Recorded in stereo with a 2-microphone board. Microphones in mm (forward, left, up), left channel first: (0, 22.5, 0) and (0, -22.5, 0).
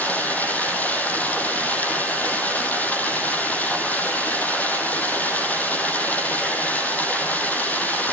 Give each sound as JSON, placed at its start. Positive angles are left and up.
{"t": 0.0, "sound": "running water", "side_deg": 40, "distance_m": 4.5}